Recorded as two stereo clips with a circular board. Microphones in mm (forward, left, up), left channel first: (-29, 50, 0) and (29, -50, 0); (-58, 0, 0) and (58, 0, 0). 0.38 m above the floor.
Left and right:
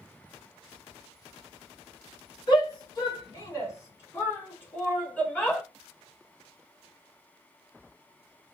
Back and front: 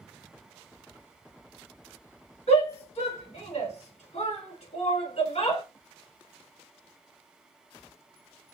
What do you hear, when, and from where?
2.5 s a shout: 170° left, 3.5 m; by 5.6 s 160° right, 3.5 m